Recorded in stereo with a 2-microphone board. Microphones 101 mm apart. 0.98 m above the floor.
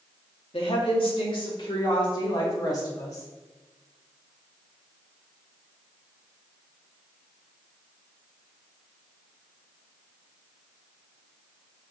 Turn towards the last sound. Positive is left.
turn(degrees=35)  # may be behind; listen again after turning